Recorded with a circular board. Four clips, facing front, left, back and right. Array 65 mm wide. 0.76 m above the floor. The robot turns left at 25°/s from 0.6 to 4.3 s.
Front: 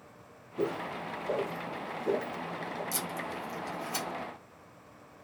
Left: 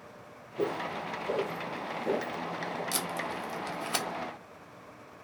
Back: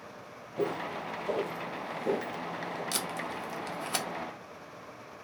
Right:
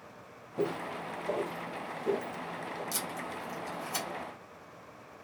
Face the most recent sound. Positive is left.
turn(degrees=120)